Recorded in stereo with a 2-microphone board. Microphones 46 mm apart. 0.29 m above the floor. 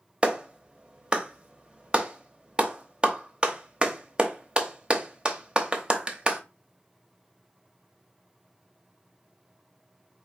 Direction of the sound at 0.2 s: 20° right (ahead or behind).